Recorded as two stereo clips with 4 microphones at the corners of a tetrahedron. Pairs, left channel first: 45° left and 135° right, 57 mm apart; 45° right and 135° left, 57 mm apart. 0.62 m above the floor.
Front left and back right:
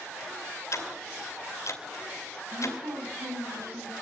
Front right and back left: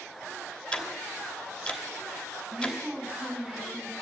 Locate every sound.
0.7 s ticking: 25° left, 3 m
2.5 s a woman speaking: 140° right, 6 m